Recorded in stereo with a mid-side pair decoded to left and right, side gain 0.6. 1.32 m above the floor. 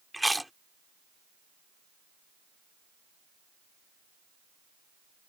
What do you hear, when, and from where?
0.1 s chewing: straight ahead